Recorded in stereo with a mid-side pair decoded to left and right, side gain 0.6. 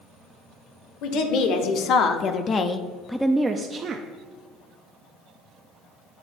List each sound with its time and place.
1.0 s a woman speaking: 70° left, 1.2 m; by 4.0 s 45° right, 0.7 m